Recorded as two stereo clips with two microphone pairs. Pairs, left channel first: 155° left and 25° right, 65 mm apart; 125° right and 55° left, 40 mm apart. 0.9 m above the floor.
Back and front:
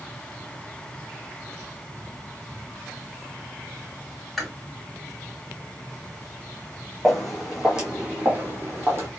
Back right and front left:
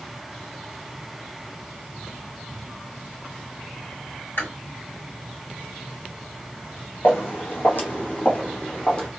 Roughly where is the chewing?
Behind right.